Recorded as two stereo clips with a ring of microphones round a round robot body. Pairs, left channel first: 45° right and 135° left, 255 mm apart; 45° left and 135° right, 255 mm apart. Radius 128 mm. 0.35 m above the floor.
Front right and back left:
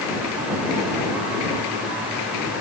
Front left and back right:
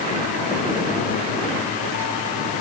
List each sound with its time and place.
Only background noise.